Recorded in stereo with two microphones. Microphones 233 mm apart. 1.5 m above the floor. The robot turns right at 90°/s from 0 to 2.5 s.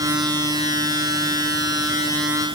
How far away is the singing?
No singing in this recording.